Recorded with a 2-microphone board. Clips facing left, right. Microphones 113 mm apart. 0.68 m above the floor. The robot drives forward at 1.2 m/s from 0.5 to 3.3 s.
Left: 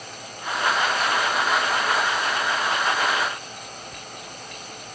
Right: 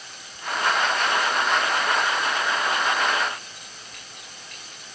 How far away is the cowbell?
No cowbell in this recording.